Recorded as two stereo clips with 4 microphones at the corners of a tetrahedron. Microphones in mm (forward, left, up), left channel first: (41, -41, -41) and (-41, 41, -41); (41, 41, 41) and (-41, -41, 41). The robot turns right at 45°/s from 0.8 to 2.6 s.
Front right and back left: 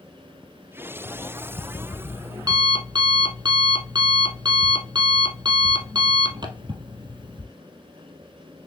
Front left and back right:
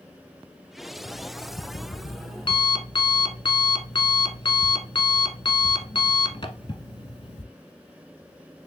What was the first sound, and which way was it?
An alarm clock, 20° left.